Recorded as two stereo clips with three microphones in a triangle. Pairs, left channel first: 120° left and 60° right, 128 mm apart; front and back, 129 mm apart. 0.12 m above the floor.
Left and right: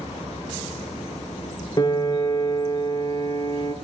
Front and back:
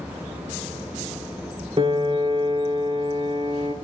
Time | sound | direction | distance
1.8 | a piano | 155° left | 0.7 m